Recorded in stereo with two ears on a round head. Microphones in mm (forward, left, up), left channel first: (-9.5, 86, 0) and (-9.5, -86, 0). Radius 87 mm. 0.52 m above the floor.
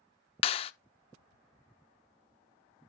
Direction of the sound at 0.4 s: 30° left (ahead or behind).